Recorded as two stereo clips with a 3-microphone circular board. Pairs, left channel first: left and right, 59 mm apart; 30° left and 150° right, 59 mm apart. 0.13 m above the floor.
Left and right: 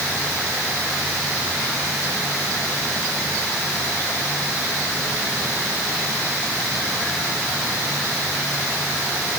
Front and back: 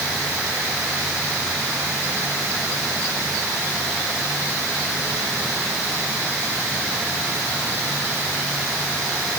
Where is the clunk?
No clunk in this recording.